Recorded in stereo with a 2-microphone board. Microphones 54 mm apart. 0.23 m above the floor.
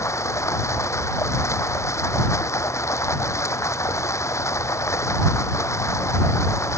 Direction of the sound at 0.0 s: 60° left (ahead or behind).